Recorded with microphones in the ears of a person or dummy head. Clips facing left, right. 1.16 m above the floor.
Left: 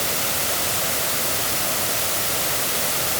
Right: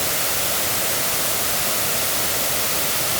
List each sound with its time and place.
Only background noise.